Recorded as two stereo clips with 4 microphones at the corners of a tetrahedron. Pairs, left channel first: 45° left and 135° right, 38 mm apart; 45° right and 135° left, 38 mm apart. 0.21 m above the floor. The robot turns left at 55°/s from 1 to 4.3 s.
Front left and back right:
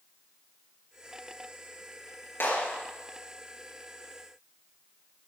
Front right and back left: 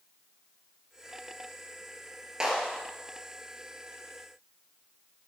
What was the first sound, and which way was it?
A clap, 65° left.